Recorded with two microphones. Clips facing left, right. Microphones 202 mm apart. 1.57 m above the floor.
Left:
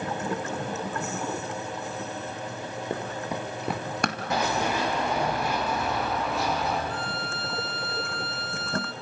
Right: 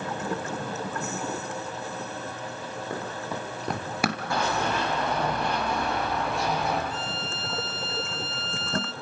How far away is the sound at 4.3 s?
About 4.5 m.